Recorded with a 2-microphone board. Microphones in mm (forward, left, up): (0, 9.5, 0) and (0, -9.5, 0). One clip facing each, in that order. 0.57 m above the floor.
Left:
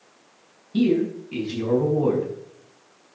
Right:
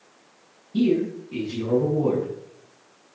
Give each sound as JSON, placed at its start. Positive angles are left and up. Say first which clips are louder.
{"t": 0.7, "sound": "a man speaking", "louder": "left 1 dB", "side_deg": 55, "distance_m": 4.5}